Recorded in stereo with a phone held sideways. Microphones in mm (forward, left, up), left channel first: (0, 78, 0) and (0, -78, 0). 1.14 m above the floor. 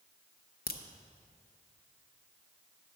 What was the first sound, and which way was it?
A crack, 75° left (ahead or behind).